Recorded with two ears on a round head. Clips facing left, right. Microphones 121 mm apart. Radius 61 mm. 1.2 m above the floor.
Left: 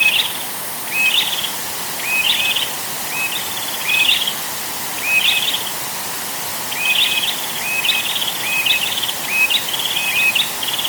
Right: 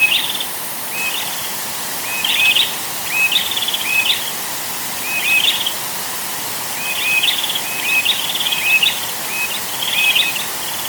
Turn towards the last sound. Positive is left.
No sound to turn to.